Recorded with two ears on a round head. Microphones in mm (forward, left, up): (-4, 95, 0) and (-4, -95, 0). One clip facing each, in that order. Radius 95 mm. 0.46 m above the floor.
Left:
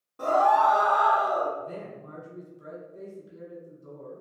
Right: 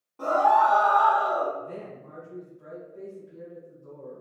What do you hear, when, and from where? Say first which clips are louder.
0.2 s a scream: even; 10° left (ahead or behind), 1.0 m
1.6 s a man speaking: even; 25° left (ahead or behind), 1.5 m